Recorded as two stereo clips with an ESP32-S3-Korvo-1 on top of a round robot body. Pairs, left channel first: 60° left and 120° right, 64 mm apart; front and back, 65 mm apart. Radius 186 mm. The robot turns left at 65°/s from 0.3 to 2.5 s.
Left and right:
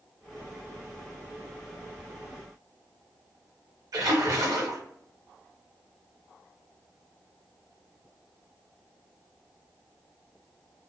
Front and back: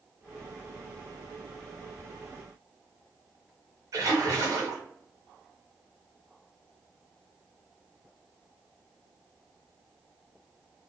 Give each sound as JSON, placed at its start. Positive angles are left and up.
{"t": 3.9, "sound": "a splash", "azimuth_deg": -145, "distance_m": 0.6}